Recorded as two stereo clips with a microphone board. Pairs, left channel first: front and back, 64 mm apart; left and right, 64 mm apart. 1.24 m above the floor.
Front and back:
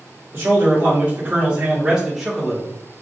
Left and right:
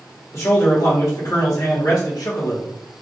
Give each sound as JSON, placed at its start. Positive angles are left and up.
{"t": 0.3, "sound": "a man speaking", "azimuth_deg": 130, "distance_m": 1.9}